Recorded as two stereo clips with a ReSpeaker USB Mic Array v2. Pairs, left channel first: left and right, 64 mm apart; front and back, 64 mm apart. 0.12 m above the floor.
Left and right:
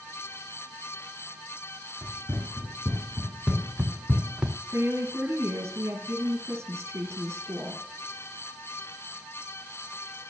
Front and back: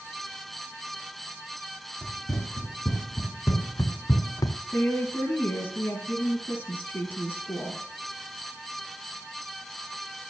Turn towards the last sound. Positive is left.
turn(degrees=-50)